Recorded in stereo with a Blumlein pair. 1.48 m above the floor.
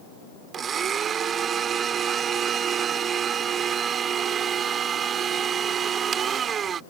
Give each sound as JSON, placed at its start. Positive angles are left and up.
{"t": 0.5, "sound": "a blender", "azimuth_deg": -25}